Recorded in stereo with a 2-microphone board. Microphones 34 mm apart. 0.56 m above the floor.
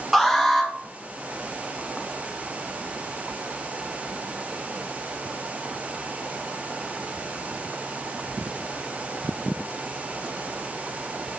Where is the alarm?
5° right (ahead or behind), 2 m.